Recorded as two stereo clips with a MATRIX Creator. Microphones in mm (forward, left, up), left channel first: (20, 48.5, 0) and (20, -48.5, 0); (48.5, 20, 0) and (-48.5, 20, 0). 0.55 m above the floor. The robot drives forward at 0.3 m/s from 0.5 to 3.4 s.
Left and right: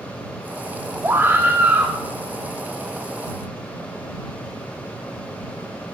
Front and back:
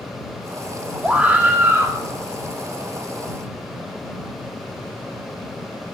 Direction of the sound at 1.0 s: 115° right.